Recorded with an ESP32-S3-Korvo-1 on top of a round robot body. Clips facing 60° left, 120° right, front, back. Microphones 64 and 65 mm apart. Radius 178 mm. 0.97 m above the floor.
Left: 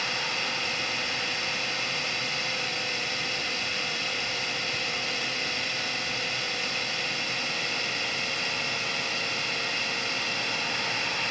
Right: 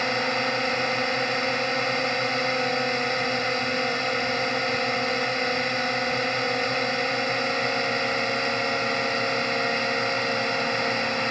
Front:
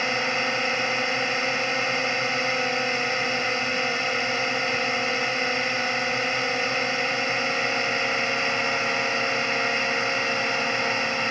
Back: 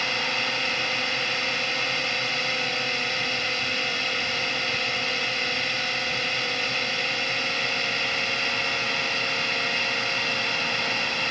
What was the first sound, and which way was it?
A drone, 70° right.